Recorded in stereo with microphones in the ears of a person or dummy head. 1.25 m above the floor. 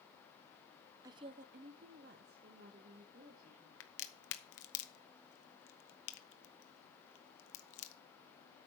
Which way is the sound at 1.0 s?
15° right (ahead or behind).